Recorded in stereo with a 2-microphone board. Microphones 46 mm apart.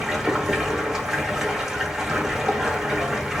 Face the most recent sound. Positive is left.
turn(degrees=-15)  # may be behind; listen again after turning